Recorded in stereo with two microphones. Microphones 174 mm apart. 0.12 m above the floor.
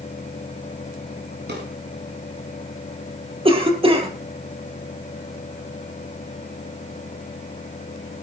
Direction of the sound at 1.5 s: 70° right (ahead or behind).